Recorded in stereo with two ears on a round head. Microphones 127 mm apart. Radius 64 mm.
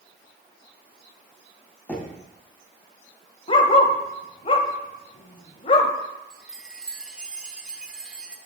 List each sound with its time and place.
1.9 s knocking: 10° left (ahead or behind), 2.5 m
3.5 s a dog barking: 40° left (ahead or behind), 1.1 m
6.3 s a chime: 5° right (ahead or behind), 1.0 m